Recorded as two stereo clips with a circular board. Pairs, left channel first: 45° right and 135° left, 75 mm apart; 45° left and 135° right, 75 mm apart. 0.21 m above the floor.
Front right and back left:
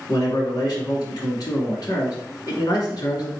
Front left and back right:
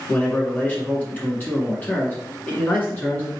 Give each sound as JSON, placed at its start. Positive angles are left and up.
{"t": 0.1, "sound": "a man speaking", "azimuth_deg": -20, "distance_m": 2.0}